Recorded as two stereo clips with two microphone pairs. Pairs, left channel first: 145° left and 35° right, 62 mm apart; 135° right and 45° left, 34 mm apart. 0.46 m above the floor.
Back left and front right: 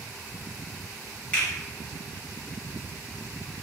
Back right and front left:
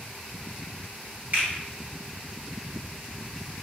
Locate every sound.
1.3 s a finger snap: 75° left, 1.8 m